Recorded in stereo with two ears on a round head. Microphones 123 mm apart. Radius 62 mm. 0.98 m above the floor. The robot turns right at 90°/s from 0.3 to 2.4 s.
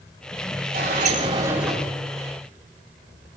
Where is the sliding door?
85° right, 4.5 m; by 1.9 s 15° left, 4.5 m.